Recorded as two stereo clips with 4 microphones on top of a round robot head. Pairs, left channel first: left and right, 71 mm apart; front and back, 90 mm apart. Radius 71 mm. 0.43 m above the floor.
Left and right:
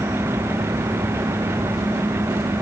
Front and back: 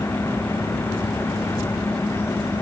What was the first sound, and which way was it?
Only background noise.